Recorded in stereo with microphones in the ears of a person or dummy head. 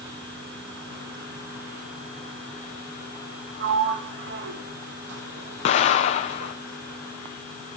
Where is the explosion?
40° left (ahead or behind), 0.6 m.